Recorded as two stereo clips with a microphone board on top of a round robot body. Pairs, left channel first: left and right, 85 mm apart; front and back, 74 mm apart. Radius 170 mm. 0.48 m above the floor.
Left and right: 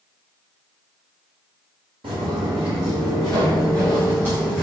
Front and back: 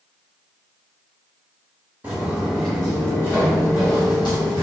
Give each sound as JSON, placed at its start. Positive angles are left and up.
{"t": 2.0, "sound": "footsteps", "azimuth_deg": -110, "distance_m": 1.0}